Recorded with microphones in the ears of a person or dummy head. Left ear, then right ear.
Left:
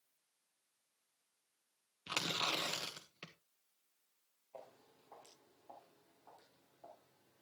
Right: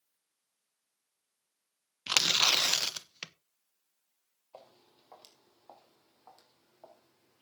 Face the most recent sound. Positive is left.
turn(degrees=-55)  # may be behind; listen again after turning